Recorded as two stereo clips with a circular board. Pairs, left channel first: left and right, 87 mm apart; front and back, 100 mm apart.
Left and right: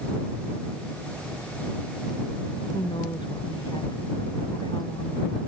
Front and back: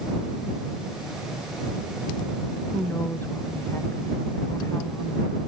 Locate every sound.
2.7 s a woman speaking: 70° left; by 5.4 s 60° left